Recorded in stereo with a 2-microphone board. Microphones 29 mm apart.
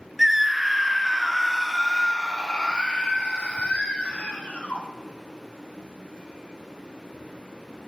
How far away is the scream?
About 1.9 m.